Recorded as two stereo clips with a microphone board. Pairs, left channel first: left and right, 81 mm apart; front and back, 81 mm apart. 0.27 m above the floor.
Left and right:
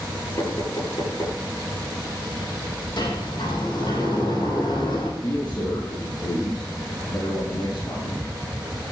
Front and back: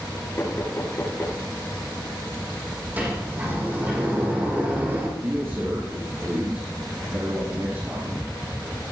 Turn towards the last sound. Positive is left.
turn(degrees=125)